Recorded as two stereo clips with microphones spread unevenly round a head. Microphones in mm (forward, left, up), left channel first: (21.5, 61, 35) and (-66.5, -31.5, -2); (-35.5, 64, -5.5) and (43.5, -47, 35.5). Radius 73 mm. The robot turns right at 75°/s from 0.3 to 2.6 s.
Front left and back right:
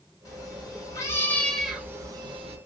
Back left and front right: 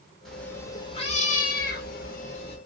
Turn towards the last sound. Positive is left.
turn(degrees=-170)